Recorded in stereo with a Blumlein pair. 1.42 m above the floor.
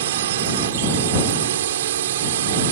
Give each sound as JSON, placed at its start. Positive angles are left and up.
{"t": 0.0, "sound": "a drone", "azimuth_deg": -55}